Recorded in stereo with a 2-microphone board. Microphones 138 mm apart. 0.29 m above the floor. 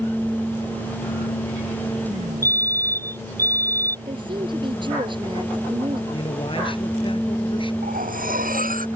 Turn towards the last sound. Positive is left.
turn(degrees=-85)